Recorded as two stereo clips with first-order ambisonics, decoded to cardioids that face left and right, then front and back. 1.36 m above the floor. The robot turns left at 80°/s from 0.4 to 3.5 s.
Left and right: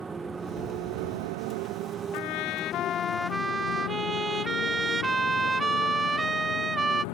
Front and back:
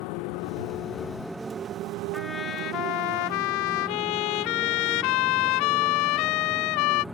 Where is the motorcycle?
20° right; by 7.1 s 95° left.